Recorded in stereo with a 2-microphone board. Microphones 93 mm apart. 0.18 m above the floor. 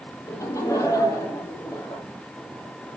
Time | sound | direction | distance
0.3 | laughter | 35° left (ahead or behind) | 5.5 m